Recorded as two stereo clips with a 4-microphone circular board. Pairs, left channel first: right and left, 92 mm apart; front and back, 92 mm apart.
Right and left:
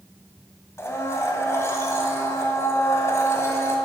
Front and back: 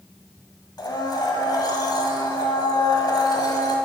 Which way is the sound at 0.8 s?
35° right.